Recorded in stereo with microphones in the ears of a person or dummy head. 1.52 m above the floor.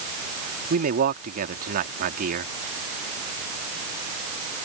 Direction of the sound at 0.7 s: 45° right (ahead or behind).